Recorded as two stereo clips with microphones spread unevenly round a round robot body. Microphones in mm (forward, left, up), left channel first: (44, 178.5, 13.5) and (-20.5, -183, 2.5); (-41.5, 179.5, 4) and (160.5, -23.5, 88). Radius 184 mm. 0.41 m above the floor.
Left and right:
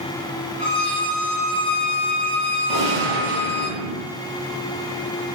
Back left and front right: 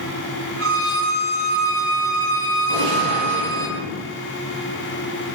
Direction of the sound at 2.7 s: 45° right.